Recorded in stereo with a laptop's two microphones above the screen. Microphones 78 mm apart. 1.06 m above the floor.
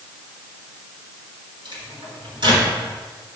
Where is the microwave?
70° right (ahead or behind), 3.5 m.